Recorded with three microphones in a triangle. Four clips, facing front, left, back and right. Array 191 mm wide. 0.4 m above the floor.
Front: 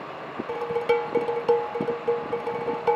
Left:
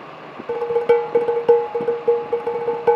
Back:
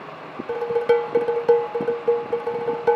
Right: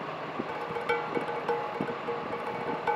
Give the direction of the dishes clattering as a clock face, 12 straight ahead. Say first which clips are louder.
Left 17 dB, back 5 dB; 8 o'clock.